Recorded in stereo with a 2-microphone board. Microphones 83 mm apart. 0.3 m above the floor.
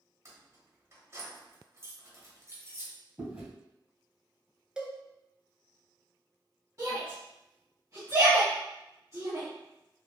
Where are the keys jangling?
35° right (ahead or behind), 1.1 m.